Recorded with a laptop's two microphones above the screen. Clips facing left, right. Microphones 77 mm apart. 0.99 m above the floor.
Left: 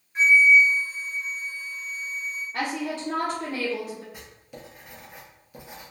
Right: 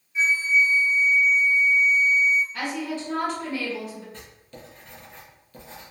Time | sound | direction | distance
0.1 | a flute | 50° left (ahead or behind) | 0.9 m
2.5 | a woman speaking | 40° left (ahead or behind) | 0.7 m
4.1 | writing | 10° left (ahead or behind) | 0.7 m